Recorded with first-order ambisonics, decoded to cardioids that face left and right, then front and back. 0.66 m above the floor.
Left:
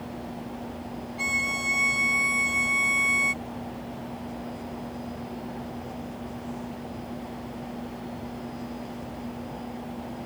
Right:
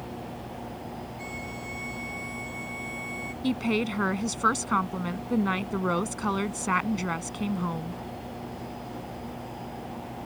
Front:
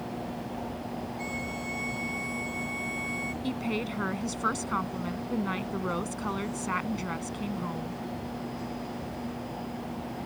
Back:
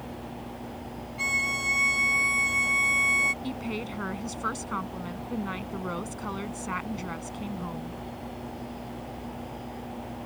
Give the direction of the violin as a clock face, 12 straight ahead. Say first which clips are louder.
Left 15 dB, back 12 dB; 8 o'clock.